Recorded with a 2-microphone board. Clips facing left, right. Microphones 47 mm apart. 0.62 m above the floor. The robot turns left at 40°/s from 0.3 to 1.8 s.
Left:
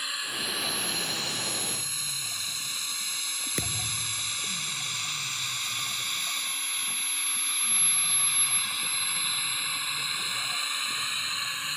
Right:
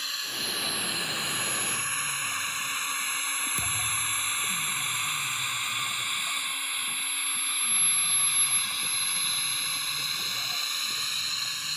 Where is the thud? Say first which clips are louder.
Right 3 dB; 55° left (ahead or behind).